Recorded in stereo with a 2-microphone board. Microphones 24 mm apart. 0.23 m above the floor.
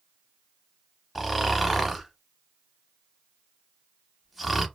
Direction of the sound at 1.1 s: 5° right (ahead or behind).